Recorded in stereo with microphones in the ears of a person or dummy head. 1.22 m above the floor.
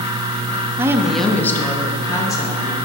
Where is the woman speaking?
20° right (ahead or behind), 0.5 m; by 2.8 s 20° left (ahead or behind), 2.0 m.